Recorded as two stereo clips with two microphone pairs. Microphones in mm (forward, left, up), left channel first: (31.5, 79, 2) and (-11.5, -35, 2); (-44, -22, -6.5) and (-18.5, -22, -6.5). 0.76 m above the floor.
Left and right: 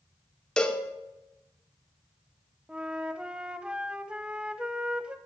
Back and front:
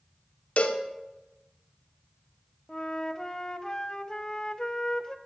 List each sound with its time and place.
0.6 s a cowbell: 150° left, 0.9 m
2.7 s a flute: 170° left, 0.6 m